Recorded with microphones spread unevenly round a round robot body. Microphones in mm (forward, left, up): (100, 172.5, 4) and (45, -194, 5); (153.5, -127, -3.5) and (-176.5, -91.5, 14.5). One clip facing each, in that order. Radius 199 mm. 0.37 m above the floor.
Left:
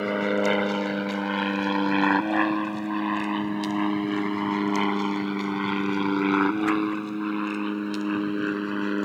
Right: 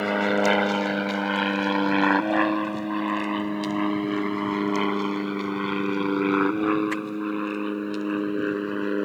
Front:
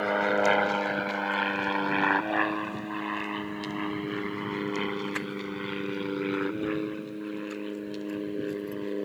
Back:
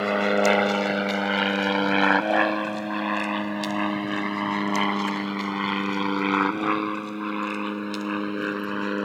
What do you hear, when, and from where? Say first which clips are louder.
0.0 s an aircraft: right 1 dB, back 4 dB; straight behind; by 9.1 s 150° left